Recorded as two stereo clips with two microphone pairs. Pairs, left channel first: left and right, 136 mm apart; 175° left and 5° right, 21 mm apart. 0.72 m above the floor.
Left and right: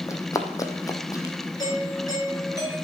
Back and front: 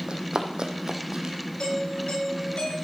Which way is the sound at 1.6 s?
150° left.